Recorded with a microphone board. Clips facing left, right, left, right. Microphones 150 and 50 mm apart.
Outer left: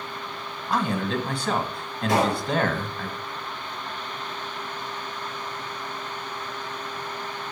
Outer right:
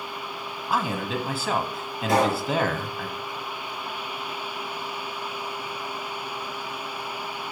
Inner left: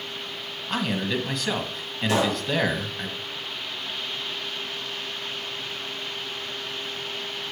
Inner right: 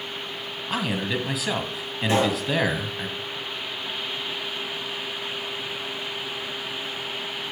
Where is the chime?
I don't hear a chime.